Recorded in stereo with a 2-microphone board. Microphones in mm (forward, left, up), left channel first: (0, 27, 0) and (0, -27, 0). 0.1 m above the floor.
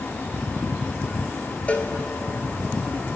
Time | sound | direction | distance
1.7 | a cowbell | 30° left (ahead or behind) | 1.0 m